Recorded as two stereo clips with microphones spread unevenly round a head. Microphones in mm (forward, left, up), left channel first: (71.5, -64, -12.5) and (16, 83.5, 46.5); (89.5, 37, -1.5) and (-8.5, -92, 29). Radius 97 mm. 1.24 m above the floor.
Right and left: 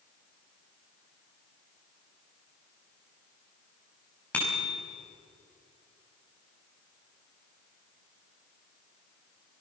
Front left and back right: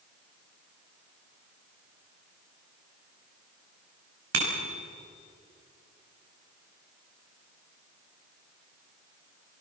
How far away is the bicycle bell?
About 6 m.